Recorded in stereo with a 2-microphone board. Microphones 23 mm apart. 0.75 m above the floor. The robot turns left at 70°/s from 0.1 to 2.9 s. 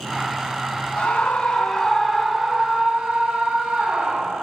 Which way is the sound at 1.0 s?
80° left.